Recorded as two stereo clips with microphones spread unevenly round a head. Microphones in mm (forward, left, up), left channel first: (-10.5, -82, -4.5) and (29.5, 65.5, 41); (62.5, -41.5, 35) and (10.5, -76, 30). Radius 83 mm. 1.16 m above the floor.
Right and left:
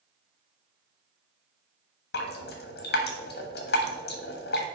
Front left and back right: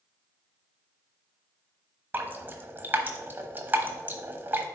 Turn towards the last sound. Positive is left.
turn(degrees=-85)